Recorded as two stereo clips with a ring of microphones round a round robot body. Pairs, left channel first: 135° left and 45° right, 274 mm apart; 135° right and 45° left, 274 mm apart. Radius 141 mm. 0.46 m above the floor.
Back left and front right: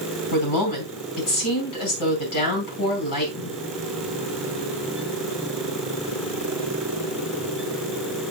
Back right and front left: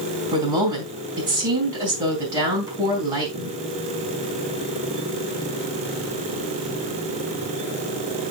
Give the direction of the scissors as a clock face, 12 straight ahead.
I don't hear scissors.